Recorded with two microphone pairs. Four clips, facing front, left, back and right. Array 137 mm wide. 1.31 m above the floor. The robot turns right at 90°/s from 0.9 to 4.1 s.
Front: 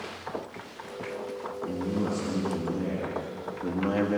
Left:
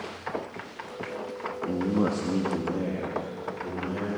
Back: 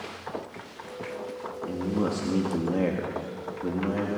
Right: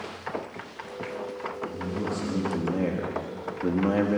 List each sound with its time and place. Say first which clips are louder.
1.7 s a man speaking: left 9 dB, back 2 dB; 90° left, 2.5 m; by 4.2 s 50° right, 2.5 m